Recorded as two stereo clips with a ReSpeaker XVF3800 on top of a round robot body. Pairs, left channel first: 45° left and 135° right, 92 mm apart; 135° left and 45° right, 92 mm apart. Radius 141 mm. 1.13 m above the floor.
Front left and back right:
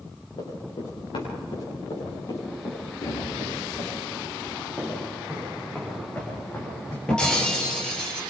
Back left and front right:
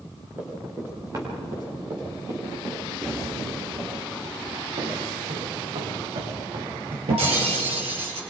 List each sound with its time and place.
0.4 s running footsteps: 20° left, 5.5 m; by 3.9 s 5° right, 8.5 m
3.0 s a thud: 35° left, 8.5 m
4.8 s footsteps: 50° right, 5 m; by 7.0 s 15° right, 5 m
7.1 s breaking glass: 40° right, 4.5 m